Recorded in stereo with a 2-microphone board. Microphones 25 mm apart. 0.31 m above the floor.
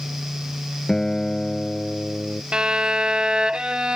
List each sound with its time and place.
0.9 s a guitar: 20° left (ahead or behind)
2.5 s a violin: 40° right (ahead or behind)